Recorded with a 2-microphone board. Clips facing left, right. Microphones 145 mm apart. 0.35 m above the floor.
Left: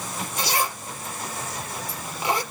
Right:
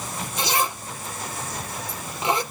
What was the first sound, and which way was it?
A zipper, 20° right (ahead or behind).